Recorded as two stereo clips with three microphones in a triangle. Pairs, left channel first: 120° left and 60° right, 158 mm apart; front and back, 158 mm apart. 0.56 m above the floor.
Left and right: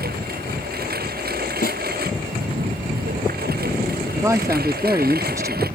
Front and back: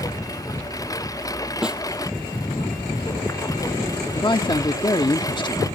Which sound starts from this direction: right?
A lawn mower, at 0.0 s.